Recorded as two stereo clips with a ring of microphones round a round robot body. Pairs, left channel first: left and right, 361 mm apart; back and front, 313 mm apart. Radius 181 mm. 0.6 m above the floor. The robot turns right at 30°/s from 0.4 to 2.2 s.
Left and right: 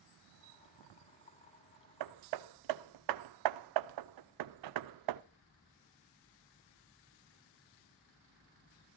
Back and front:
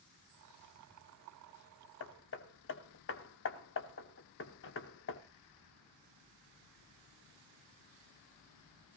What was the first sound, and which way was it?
Hammering, 130° right.